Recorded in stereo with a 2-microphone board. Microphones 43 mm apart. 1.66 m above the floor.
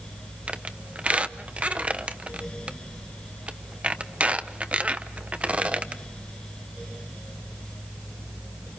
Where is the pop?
I don't hear a pop.